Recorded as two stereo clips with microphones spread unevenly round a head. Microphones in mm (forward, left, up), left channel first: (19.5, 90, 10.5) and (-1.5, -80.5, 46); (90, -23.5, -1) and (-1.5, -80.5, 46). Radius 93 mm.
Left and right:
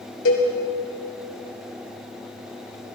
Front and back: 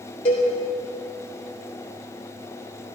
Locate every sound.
0.2 s a cowbell: 70° left, 3.5 m